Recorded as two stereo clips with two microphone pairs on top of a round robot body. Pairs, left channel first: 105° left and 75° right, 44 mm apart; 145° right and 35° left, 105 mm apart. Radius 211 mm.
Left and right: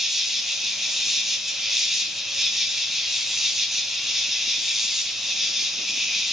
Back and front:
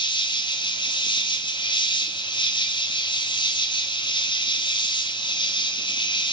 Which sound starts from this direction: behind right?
An insect, at 0.0 s.